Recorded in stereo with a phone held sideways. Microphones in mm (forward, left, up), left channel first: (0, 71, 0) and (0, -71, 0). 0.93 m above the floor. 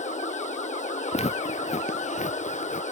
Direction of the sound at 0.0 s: 55° left (ahead or behind).